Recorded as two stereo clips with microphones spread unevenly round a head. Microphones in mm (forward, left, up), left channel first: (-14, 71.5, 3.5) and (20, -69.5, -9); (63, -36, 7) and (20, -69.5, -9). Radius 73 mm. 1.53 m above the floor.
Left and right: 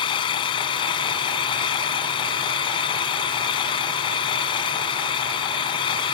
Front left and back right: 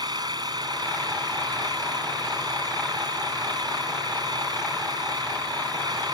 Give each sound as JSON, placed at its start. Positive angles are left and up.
{"t": 0.0, "sound": "an engine running", "azimuth_deg": 160}